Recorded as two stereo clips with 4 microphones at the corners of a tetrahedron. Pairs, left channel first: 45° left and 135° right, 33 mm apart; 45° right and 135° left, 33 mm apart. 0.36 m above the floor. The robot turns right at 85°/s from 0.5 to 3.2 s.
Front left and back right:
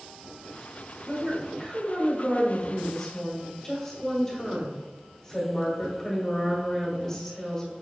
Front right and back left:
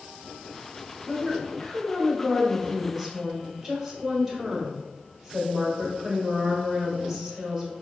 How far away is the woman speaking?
About 1.4 m.